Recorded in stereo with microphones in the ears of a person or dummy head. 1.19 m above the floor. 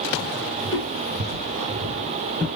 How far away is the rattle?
No rattle in this recording.